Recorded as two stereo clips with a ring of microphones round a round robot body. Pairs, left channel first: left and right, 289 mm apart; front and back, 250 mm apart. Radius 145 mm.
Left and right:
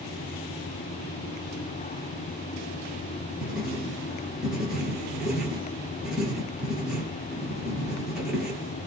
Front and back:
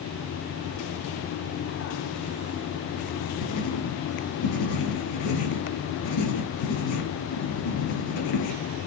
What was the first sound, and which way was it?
Writing, straight ahead.